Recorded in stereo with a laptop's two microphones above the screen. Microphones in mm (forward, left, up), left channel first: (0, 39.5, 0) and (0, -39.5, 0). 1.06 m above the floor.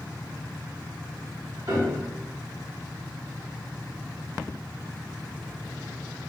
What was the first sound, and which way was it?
A piano, 45° right (ahead or behind).